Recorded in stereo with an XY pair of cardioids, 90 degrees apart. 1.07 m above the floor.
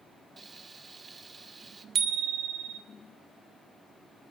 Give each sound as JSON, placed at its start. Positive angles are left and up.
{"t": 0.4, "sound": "frying", "azimuth_deg": -35, "distance_m": 2.5}
{"t": 1.9, "sound": "a bicycle bell", "azimuth_deg": -70, "distance_m": 3.0}